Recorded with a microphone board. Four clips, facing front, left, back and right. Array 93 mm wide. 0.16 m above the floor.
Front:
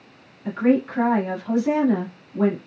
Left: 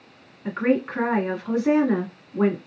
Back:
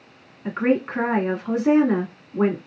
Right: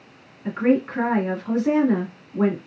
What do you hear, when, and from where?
0.5 s a woman speaking: 165° left, 1.6 m